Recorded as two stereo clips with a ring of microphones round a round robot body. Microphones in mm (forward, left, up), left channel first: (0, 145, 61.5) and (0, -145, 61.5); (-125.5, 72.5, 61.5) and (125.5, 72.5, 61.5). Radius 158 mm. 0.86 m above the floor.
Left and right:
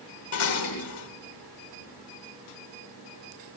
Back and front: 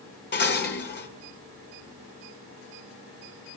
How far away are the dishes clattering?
About 2.5 m.